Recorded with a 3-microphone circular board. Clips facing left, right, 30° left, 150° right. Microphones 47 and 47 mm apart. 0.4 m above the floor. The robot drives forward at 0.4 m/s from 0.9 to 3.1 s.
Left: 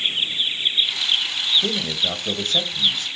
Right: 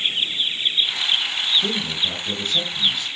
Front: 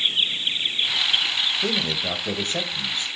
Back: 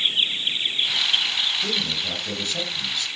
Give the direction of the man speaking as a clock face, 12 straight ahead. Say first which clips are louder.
Even, front 2 dB; 10 o'clock.